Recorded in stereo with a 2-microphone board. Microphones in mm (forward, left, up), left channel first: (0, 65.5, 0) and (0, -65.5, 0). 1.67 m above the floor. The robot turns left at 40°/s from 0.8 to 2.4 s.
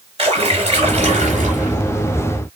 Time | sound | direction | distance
0.2 | a splash | 55° right | 4 m